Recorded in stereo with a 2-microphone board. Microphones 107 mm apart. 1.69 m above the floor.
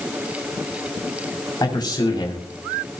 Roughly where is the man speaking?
Left.